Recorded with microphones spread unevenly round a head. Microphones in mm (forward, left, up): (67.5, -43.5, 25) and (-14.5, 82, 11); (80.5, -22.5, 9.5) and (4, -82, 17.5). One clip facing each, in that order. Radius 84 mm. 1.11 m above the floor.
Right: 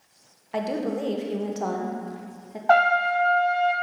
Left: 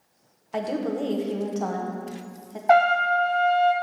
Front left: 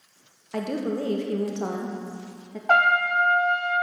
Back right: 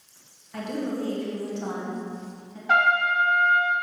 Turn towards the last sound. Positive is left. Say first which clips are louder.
# left 1 dB, front left 1 dB
turn(degrees=55)